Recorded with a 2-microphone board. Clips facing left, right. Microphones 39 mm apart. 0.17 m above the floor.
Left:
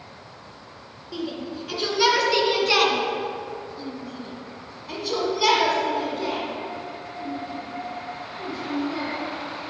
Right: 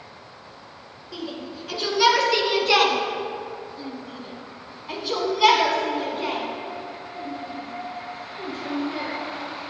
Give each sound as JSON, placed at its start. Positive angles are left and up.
{"t": 1.1, "sound": "a shout", "side_deg": 5, "distance_m": 2.5}